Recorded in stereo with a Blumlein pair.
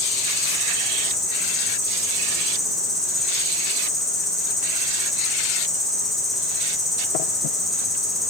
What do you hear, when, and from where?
0.0 s an insect: 5° left, 1.1 m